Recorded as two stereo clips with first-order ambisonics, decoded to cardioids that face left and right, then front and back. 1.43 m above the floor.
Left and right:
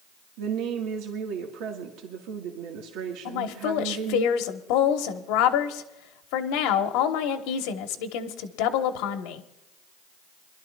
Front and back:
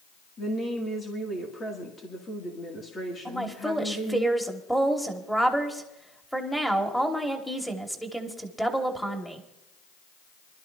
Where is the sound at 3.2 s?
90° left, 1.4 m.